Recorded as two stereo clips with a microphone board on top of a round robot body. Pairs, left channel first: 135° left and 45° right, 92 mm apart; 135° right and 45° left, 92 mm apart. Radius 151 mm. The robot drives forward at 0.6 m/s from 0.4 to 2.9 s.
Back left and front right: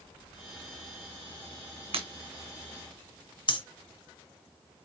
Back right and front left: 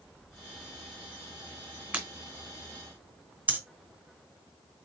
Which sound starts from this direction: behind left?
Breathing, at 3.5 s.